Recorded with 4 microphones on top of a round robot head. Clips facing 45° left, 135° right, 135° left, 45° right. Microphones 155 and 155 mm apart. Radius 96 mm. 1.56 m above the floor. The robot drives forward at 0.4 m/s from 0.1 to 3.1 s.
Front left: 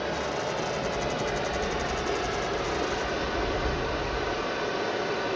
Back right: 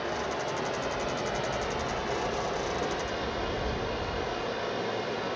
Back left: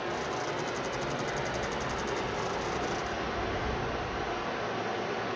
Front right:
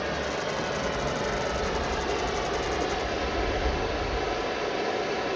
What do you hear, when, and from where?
0.0 s running water: 5° left, 3 m; by 5.4 s 10° left, 2.0 m